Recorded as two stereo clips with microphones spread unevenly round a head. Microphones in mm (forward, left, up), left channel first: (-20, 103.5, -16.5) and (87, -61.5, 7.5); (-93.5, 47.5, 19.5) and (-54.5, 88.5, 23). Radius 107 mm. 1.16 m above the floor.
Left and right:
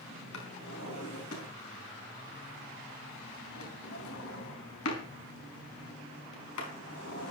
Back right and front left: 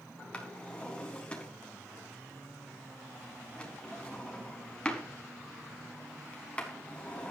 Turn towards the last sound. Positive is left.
turn(degrees=155)